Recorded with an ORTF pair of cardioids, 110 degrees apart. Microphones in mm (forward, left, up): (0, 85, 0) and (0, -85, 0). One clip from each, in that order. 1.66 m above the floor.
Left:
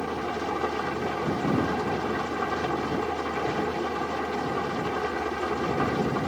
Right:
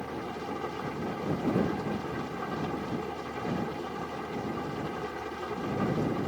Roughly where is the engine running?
Ahead left.